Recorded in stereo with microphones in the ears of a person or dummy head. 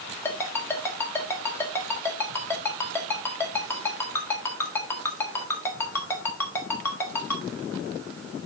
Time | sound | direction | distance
0.2 | a ringtone | 25° left (ahead or behind) | 1.4 m